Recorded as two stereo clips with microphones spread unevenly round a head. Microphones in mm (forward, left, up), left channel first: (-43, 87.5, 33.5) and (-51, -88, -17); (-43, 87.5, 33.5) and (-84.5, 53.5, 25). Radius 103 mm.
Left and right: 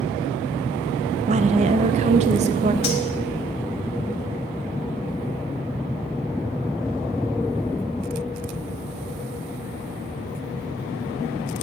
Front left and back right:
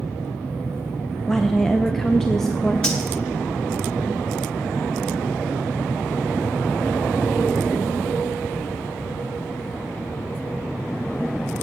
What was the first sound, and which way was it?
A woman speaking, 50° right.